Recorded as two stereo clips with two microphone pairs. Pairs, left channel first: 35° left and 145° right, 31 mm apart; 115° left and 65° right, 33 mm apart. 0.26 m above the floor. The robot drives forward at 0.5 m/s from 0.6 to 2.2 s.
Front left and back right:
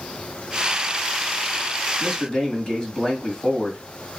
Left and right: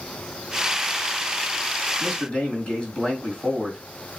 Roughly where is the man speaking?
Left.